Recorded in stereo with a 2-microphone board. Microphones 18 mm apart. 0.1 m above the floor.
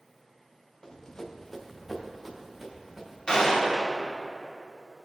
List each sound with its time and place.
0.8 s running footsteps: 40° left (ahead or behind), 1.3 m; by 3.2 s 15° right (ahead or behind), 3 m
3.3 s a gunshot: 30° left (ahead or behind), 2.5 m